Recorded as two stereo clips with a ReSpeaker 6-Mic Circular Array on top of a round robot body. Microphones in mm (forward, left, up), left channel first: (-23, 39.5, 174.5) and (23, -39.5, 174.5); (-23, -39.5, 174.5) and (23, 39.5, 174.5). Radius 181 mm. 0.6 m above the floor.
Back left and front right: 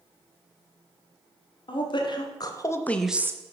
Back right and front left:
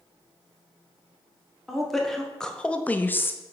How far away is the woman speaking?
About 1.6 m.